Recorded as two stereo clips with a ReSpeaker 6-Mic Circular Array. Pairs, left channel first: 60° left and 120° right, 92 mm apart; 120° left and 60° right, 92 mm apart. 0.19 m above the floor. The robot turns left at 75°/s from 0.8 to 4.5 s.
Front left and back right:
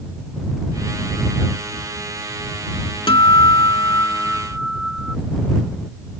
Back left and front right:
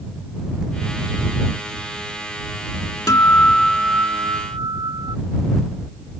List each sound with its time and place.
3.1 s a guitar: 70° left; by 5.2 s 35° right